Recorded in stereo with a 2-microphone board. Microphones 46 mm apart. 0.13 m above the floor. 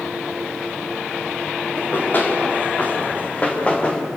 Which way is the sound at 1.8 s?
45° left (ahead or behind).